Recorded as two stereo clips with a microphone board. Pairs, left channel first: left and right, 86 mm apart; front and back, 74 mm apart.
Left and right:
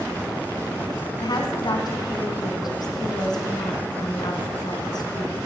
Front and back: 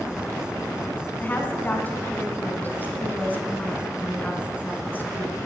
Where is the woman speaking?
60° left, 3 m.